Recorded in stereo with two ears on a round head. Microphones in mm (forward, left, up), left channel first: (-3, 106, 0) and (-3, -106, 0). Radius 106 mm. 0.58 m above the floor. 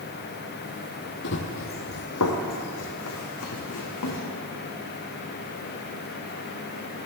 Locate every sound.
1.2 s running footsteps: 50° left (ahead or behind), 1.4 m; by 4.2 s 75° left (ahead or behind), 3 m